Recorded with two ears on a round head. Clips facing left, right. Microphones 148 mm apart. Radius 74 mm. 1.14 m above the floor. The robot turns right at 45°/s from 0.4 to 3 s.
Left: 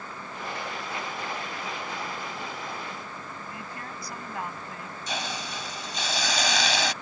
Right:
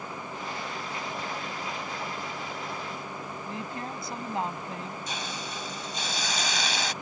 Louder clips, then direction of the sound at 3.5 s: Right 4 dB; 20° right (ahead or behind).